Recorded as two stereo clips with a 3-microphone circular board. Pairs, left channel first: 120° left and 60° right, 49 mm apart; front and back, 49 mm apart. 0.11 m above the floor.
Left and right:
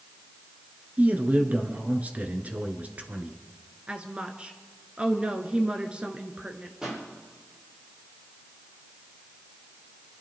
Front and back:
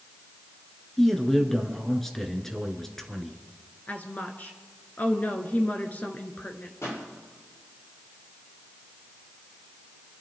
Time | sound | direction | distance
1.0 | a man speaking | 75° right | 1.5 m
3.9 | a woman speaking | 15° right | 1.4 m
6.8 | a pop | 20° left | 7 m